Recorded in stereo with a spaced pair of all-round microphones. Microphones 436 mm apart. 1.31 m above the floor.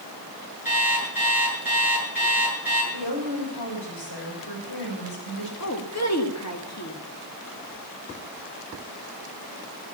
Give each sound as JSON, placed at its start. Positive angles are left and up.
{"t": 0.7, "sound": "an alarm clock", "side_deg": 50, "distance_m": 8.5}
{"t": 2.9, "sound": "a woman speaking", "side_deg": 65, "distance_m": 7.0}
{"t": 5.6, "sound": "a woman speaking", "side_deg": 35, "distance_m": 2.5}